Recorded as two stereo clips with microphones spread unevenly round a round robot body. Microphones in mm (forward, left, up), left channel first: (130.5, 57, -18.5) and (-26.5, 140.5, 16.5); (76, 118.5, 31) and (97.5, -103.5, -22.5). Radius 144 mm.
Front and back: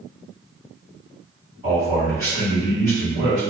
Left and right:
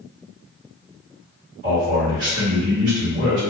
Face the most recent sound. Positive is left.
turn(degrees=-85)